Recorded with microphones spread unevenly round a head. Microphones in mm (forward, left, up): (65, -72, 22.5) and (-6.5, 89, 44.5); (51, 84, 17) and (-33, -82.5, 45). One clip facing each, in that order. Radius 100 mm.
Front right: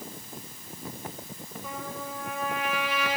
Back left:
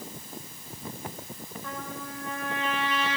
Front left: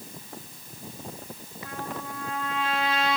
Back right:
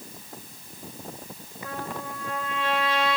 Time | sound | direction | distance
1.6 | a trumpet | 150° right | 4 m